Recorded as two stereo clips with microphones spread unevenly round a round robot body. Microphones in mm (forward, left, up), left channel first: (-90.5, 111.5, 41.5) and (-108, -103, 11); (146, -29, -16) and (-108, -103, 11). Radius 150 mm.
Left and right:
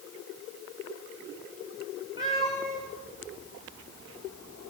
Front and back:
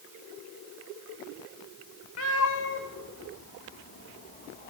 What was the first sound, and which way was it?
A cat meowing, 20° right.